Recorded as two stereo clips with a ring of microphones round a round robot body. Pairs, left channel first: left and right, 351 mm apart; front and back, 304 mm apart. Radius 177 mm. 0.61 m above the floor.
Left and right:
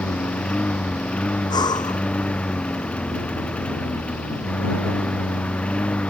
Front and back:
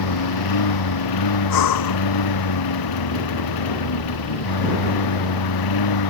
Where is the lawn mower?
5° left.